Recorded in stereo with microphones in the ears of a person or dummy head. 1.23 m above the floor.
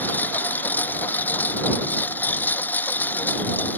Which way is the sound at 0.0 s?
10° left (ahead or behind).